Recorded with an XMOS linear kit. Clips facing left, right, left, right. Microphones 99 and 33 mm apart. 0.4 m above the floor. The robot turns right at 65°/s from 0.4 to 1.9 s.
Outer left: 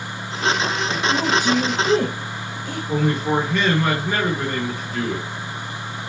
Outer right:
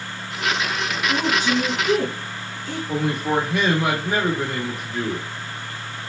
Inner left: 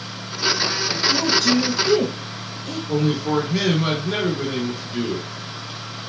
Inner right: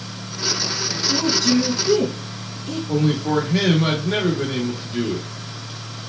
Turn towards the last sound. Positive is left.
turn(degrees=-10)  # may be behind; listen again after turning